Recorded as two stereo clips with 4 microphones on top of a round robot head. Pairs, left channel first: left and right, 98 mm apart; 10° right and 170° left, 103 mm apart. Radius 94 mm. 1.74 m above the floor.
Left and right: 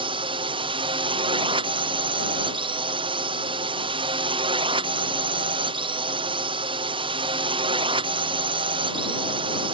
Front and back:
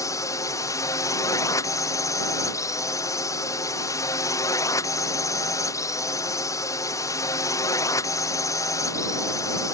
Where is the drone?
65° right.